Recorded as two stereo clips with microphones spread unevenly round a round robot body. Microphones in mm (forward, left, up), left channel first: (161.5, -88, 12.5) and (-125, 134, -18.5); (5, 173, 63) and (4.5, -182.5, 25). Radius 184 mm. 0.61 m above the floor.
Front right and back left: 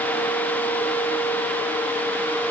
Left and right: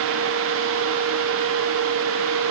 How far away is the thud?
I don't hear a thud.